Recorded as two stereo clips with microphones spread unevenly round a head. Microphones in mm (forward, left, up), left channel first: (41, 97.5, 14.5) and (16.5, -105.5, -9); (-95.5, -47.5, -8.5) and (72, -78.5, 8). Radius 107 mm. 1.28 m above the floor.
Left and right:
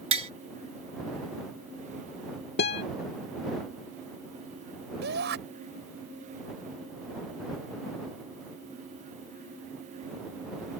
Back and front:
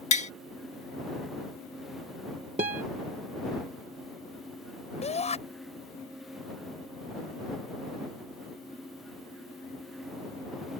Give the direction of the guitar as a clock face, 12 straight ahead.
10 o'clock.